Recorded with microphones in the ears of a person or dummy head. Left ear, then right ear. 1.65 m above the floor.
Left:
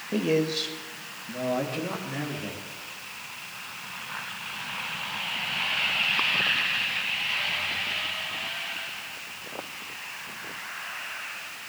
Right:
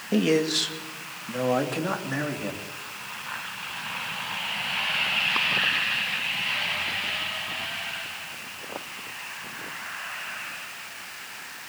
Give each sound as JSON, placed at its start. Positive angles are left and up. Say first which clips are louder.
{"t": 0.1, "sound": "a man speaking", "louder": "right 3 dB", "side_deg": -70, "distance_m": 2.0}